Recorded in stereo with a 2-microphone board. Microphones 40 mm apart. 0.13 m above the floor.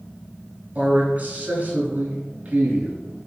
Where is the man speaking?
35° right (ahead or behind), 1.5 m.